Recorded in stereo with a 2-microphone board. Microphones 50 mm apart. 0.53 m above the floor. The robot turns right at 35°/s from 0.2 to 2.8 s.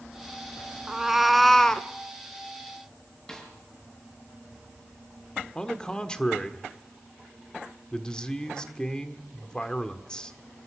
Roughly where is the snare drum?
Centre.